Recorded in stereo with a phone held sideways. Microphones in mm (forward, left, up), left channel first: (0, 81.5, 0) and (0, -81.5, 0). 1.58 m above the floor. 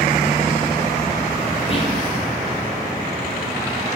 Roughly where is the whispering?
Left.